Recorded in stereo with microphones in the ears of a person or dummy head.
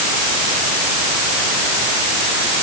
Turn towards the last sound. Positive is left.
No sound to turn to.